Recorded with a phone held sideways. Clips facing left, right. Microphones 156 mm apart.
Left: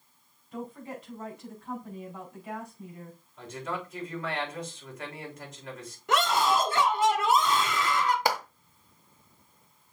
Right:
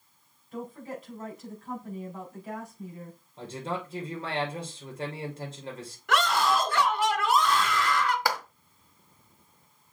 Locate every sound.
0.5 s a woman speaking: centre (ahead or behind), 5 m
3.4 s a man speaking: 30° right (ahead or behind), 3 m
6.1 s a scream: 20° left (ahead or behind), 1.9 m
8.2 s a clap: 20° left (ahead or behind), 1.2 m